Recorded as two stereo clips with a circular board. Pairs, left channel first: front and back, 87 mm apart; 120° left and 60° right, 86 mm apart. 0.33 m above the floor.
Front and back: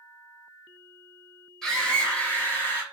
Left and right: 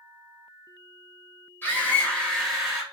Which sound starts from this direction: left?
A scream, at 1.6 s.